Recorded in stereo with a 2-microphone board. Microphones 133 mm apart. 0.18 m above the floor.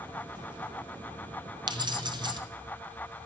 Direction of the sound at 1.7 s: 35° right (ahead or behind).